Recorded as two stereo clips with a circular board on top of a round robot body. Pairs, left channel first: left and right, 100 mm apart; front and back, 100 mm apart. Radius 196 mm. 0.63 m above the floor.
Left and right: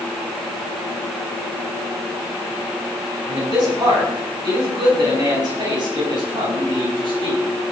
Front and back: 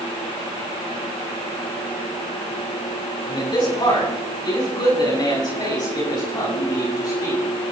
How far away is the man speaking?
About 9.5 m.